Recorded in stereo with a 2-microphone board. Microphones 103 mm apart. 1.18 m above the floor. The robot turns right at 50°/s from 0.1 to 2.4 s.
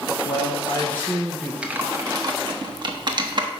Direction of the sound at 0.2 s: 125° left.